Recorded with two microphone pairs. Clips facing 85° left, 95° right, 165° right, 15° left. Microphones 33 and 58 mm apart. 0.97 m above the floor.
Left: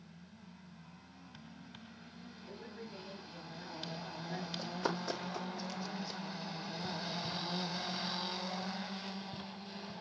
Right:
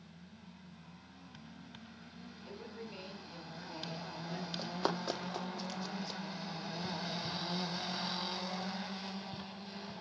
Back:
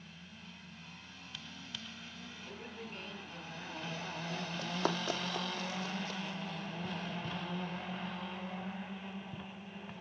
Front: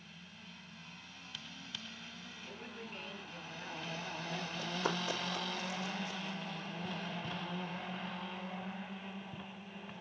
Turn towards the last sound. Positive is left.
turn(degrees=-165)